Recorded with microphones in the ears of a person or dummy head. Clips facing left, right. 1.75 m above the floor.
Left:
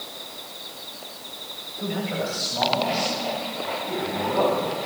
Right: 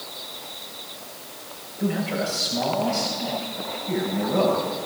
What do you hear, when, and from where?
1.8 s a man speaking: 5° right (ahead or behind), 7 m; by 4.7 s 15° right (ahead or behind), 8.5 m